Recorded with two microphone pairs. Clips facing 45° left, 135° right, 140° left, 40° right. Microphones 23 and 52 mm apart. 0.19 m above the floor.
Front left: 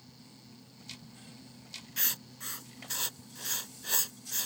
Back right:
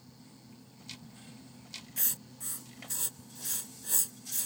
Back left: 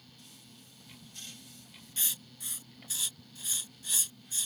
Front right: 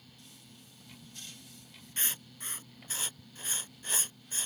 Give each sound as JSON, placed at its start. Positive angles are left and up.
{"t": 2.0, "sound": "writing", "azimuth_deg": 0}